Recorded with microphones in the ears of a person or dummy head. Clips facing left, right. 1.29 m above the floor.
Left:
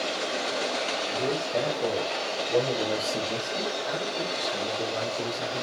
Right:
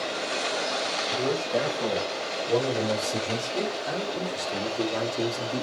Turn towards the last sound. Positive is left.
turn(degrees=-70)  # may be behind; listen again after turning